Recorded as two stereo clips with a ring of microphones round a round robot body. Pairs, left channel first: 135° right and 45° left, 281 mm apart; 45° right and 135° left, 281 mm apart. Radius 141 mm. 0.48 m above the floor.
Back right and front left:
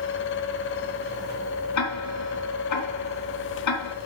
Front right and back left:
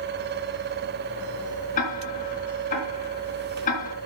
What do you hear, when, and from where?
1.8 s ticking: 110° right, 3.5 m